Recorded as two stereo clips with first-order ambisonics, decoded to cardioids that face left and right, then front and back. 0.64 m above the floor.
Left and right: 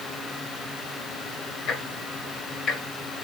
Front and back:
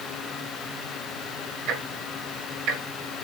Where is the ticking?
140° left, 1.2 m.